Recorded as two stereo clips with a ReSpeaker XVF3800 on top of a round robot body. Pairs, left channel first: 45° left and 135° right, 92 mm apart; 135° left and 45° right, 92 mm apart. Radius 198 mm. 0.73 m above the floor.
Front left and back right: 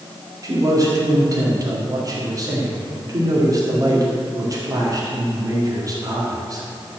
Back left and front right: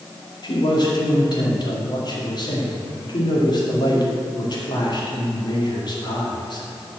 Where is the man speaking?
175° left, 2.0 m.